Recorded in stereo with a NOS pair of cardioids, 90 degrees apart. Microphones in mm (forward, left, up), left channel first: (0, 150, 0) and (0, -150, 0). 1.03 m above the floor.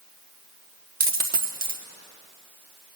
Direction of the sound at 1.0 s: 30° right.